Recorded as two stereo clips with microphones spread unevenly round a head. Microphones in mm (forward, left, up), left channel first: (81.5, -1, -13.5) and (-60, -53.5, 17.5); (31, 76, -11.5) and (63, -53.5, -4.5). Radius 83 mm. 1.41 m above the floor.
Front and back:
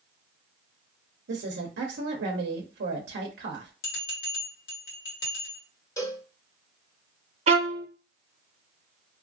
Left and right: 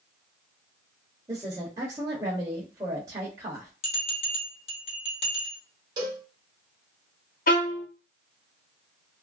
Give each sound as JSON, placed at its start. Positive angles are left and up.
{"t": 1.3, "sound": "a woman speaking", "azimuth_deg": -145, "distance_m": 0.7}
{"t": 3.8, "sound": "a bell", "azimuth_deg": 60, "distance_m": 1.5}
{"t": 6.0, "sound": "a cowbell", "azimuth_deg": -50, "distance_m": 1.2}
{"t": 7.5, "sound": "a violin", "azimuth_deg": 140, "distance_m": 0.7}